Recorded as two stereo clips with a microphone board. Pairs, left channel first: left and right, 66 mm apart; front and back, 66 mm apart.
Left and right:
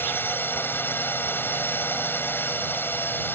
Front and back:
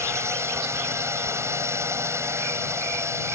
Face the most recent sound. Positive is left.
turn(degrees=145)